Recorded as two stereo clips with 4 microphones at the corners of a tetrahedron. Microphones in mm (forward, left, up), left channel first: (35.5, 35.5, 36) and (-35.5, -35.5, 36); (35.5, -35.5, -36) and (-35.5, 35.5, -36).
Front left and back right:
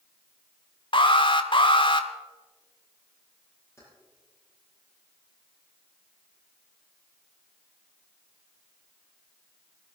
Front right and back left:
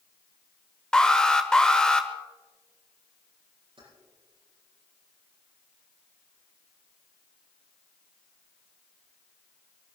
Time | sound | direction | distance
0.9 | an alarm | 35° left | 1.1 m
3.8 | keys jangling | 105° left | 9 m